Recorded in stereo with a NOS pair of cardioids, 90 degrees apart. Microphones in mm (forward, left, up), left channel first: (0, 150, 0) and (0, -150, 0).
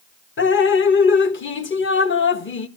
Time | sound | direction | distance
0.4 | dripping | 40° left | 1.4 m